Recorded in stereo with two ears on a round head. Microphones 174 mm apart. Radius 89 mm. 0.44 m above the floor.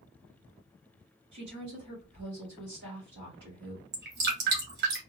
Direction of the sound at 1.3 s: 60° right (ahead or behind).